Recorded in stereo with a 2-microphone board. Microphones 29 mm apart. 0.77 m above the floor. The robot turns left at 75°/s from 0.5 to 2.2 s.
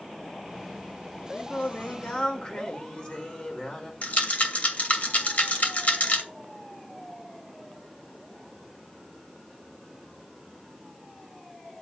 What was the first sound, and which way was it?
Singing, 105° left.